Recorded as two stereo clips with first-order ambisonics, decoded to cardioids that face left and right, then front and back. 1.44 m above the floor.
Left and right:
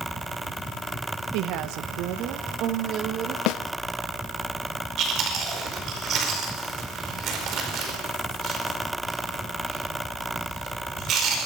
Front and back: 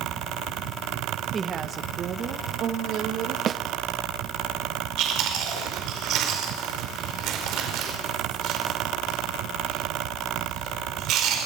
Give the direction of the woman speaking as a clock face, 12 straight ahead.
4 o'clock.